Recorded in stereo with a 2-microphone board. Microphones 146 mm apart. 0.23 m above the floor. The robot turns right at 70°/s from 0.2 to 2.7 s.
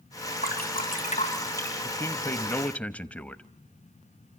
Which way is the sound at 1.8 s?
20° left (ahead or behind).